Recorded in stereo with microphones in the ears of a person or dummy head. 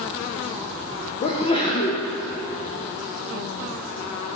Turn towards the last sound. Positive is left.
turn(degrees=35)  # may be behind; listen again after turning